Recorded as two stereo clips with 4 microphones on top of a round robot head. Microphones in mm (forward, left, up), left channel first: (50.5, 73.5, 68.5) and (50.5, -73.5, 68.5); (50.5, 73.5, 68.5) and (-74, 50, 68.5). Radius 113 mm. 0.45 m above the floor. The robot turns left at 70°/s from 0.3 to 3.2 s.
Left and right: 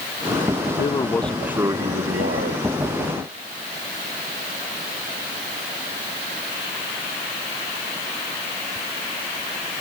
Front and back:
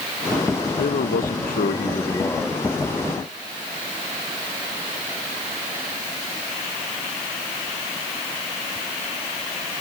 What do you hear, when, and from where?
0.8 s a man speaking: 40° left; by 2.7 s 90° right